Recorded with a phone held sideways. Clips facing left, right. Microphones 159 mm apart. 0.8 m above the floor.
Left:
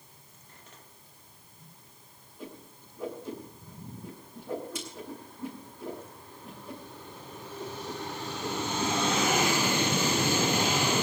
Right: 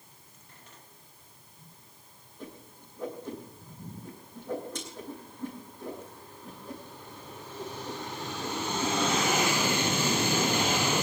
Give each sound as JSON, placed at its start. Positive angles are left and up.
{"t": 2.4, "sound": "a whoosh", "side_deg": 10, "distance_m": 9.0}